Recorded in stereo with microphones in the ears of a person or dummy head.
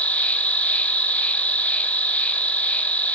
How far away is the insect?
About 0.7 m.